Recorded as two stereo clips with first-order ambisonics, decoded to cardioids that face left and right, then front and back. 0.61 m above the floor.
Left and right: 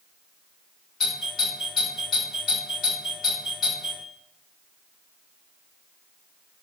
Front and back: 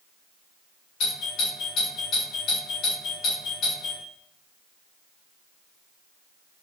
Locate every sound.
1.0 s a doorbell: 30° left, 1.6 m